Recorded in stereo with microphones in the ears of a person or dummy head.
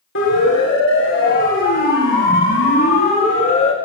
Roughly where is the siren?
Left.